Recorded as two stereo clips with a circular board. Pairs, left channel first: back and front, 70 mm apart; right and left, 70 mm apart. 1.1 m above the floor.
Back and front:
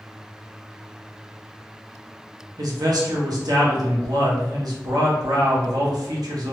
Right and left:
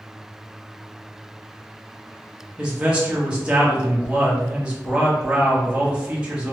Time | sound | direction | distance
2.6 | a man speaking | 15° left | 1.0 m